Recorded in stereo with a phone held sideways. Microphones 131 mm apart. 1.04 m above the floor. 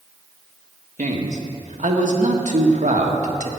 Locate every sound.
1.0 s a man speaking: 65° right (ahead or behind), 1.6 m